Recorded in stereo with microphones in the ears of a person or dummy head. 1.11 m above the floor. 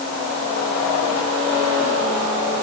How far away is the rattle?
I don't hear a rattle.